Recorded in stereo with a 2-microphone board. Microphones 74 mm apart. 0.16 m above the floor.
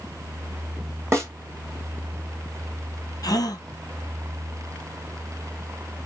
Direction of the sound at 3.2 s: 60° left (ahead or behind).